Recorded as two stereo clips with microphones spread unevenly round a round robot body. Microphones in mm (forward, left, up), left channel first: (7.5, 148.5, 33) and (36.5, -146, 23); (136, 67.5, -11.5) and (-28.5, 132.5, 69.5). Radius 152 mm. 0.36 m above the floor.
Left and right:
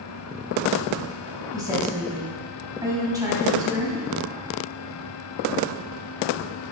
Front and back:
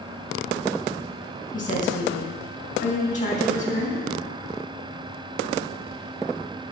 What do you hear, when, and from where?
1.5 s a woman speaking: 5° right, 3 m